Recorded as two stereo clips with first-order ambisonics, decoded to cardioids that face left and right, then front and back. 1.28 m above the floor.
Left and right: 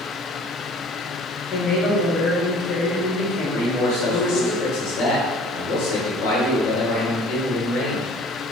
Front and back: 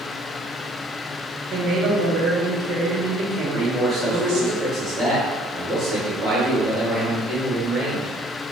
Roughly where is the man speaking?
Left.